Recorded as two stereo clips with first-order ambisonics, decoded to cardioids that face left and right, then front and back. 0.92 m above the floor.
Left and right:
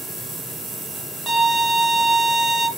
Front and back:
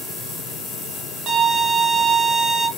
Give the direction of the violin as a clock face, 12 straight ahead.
5 o'clock.